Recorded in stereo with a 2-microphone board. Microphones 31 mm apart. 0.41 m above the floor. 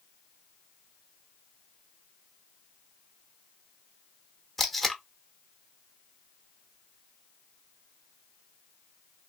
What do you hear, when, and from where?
4.6 s tape being pulled: 5° left (ahead or behind), 0.9 m